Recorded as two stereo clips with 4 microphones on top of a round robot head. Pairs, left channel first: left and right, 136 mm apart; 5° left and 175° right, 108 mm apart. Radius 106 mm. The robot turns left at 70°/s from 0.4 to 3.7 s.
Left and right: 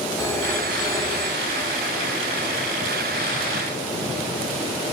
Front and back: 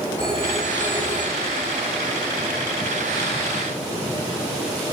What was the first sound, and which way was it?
A phone ringing, 25° left.